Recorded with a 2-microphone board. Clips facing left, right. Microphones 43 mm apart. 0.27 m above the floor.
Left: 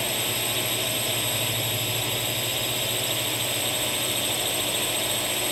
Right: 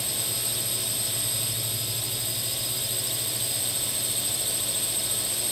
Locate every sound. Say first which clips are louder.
0.0 s a drone: left 7 dB; 50° left (ahead or behind)